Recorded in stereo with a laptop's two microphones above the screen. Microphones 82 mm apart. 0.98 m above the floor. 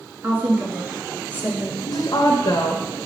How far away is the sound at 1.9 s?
About 0.8 m.